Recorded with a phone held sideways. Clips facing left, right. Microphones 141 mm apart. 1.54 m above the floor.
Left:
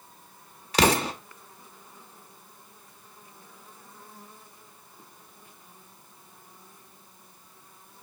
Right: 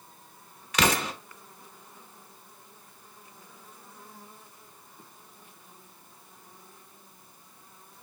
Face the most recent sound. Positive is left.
turn(degrees=30)  # may be behind; listen again after turning